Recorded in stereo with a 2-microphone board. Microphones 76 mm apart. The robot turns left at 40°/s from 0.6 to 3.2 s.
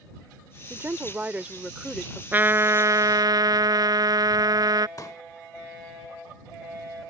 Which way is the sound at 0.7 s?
120° right.